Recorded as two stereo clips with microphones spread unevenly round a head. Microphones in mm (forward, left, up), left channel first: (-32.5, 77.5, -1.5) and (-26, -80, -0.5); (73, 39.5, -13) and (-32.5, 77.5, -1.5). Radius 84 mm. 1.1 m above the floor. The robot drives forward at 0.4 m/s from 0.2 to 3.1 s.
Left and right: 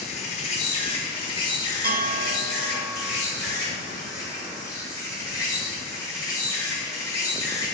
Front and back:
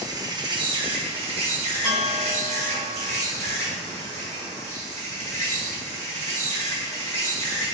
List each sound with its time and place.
0.0 s an insect: 120° left, 0.7 m; by 7.8 s 160° left, 1.6 m
1.8 s a bell: 115° right, 0.7 m; by 3.2 s 145° right, 1.0 m